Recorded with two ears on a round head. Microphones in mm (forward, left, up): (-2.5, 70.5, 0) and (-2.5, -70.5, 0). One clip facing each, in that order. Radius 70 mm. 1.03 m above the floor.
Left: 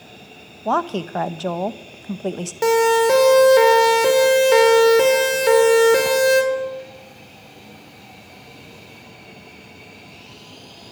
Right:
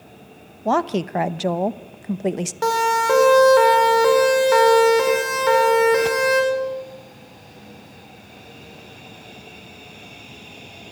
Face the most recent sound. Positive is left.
turn(degrees=40)  # may be behind; listen again after turning